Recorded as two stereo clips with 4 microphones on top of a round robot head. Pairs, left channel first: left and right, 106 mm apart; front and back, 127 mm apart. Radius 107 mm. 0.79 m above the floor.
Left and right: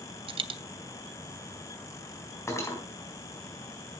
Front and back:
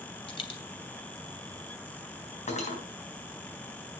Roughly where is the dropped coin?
Ahead right.